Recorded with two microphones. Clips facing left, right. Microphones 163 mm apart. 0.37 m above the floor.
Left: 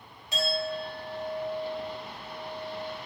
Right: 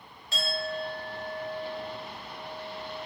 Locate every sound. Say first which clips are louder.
0.3 s a clink: left 3 dB; 15° left (ahead or behind), 0.8 m